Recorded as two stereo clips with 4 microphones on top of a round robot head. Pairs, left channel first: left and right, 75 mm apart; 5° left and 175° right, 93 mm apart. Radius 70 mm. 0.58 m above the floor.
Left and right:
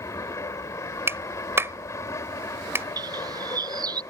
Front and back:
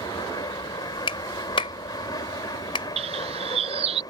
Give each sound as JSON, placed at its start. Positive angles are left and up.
{"t": 0.0, "sound": "an aircraft", "azimuth_deg": 45}
{"t": 1.1, "sound": "a clap", "azimuth_deg": -35}
{"t": 3.0, "sound": "a bird", "azimuth_deg": -140}